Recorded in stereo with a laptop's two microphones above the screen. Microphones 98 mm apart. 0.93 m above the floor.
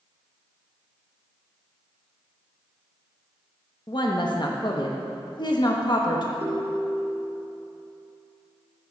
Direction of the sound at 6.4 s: 25° right (ahead or behind).